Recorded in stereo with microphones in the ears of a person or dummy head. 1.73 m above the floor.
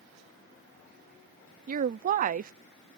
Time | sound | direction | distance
1.7 | a woman speaking | 40° right (ahead or behind) | ?